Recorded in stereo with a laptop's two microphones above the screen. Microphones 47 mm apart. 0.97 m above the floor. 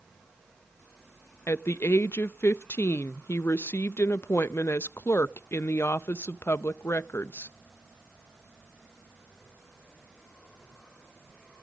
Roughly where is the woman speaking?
Left.